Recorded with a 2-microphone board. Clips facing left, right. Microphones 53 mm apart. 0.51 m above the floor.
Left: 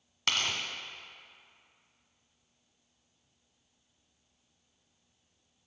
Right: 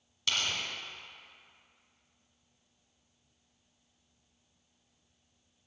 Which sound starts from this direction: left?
Tearing paper, at 0.3 s.